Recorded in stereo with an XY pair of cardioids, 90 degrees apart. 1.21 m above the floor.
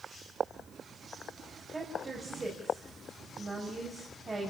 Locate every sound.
1.7 s a woman speaking: 30° right, 6 m